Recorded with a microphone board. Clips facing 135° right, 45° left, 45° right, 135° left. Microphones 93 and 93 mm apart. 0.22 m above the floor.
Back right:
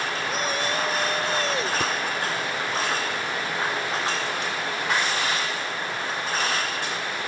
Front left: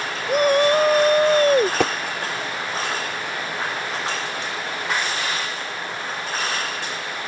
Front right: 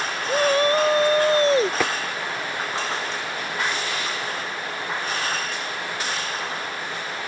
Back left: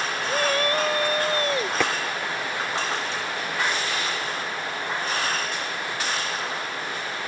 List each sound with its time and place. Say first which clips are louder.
0.3 s a shout: front left 14 dB, front right 5 dB; 25° left; by 1.7 s 10° left
1.8 s tapping: front left 6 dB, front right 1 dB; 40° left